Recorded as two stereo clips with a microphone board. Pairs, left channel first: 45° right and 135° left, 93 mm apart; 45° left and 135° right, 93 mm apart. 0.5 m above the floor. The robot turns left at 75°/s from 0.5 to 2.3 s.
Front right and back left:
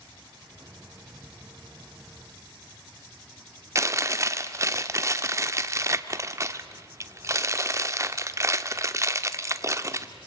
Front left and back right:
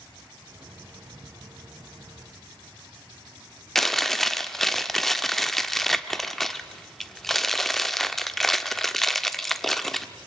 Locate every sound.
3.8 s chewing: 130° left, 0.9 m